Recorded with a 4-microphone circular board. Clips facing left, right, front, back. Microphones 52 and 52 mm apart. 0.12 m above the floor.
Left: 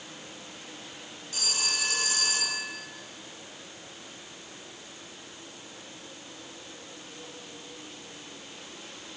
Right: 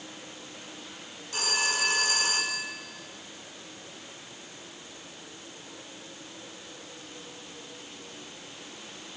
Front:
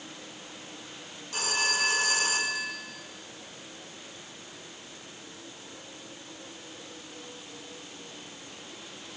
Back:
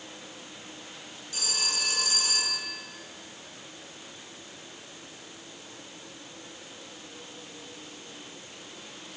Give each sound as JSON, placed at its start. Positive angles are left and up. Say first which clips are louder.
{"t": 1.3, "sound": "a phone ringing", "louder": "right 5 dB, front 6 dB", "azimuth_deg": -40, "distance_m": 5.5}